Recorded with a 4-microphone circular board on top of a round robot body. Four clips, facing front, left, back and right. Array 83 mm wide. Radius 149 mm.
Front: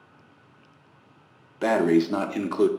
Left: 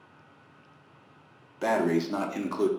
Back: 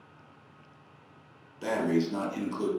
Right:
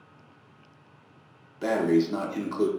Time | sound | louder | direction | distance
1.6 | breathing | right 2 dB, front 7 dB | 10° left | 0.6 m